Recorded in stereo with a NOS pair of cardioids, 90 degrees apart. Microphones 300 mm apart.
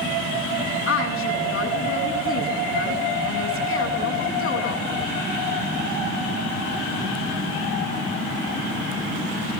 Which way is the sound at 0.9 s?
45° left.